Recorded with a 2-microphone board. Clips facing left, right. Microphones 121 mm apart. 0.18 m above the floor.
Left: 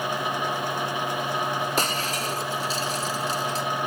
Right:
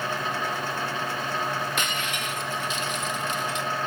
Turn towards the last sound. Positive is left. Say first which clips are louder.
# left 3 dB
turn(degrees=35)  # may be behind; listen again after turning